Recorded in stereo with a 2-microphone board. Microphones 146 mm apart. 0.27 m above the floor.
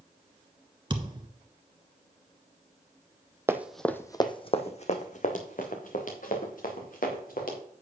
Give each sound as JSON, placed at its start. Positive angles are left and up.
{"t": 0.9, "sound": "a thud", "side_deg": -35, "distance_m": 1.4}
{"t": 3.5, "sound": "running footsteps", "side_deg": -20, "distance_m": 0.7}